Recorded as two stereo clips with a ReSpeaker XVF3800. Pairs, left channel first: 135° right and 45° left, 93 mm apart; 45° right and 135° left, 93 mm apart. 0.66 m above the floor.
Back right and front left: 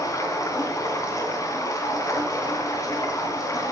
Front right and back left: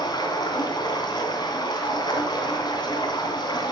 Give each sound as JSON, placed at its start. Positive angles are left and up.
{"t": 0.0, "sound": "running water", "azimuth_deg": -85, "distance_m": 2.5}